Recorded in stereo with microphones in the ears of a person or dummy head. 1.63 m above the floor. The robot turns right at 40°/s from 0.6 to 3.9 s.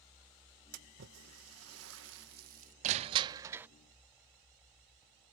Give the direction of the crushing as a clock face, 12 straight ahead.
1 o'clock.